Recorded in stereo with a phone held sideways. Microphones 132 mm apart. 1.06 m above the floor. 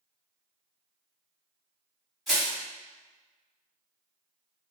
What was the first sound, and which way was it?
Crushing, centre (ahead or behind).